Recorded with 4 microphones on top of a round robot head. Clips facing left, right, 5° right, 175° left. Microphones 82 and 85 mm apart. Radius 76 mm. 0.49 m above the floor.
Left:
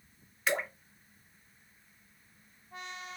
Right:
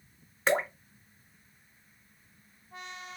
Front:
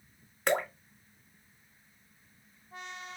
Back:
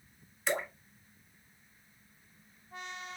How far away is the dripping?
About 0.7 m.